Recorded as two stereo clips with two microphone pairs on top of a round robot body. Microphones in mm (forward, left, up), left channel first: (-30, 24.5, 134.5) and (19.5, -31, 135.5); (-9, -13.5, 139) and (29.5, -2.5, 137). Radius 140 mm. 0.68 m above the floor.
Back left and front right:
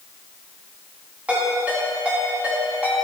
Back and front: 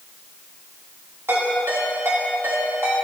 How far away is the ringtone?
About 5 m.